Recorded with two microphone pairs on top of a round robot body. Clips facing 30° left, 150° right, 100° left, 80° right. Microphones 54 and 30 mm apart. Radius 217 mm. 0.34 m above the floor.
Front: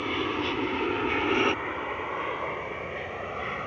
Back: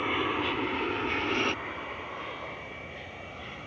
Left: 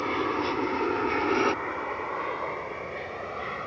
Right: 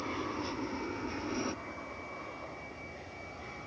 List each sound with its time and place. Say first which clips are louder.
0.0 s an aircraft: even, left 10 dB; 140° left; by 3.7 s 65° left